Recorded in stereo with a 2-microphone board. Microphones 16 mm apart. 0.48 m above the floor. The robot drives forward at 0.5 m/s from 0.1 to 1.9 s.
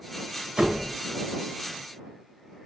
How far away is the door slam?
About 1.1 m.